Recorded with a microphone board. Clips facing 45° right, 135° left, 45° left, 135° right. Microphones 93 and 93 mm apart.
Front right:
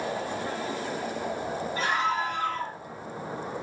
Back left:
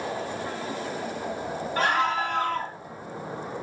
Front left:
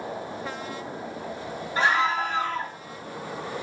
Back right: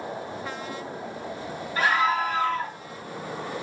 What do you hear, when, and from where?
1.8 s a scream: 110° left, 6.5 m